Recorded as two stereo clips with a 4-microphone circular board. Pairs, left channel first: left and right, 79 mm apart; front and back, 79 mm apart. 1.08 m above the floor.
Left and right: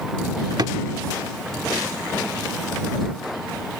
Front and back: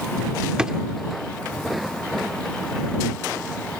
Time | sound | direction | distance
0.6 | a drawer | 105° right | ?